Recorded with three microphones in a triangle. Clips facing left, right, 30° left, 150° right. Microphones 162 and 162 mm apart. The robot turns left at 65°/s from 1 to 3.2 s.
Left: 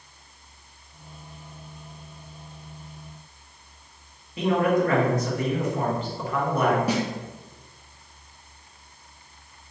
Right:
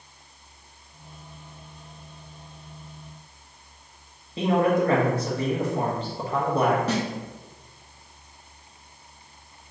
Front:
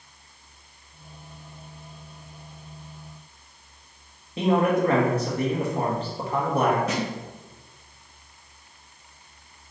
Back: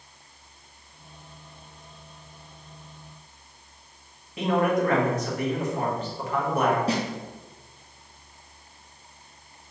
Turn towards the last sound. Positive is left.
turn(degrees=165)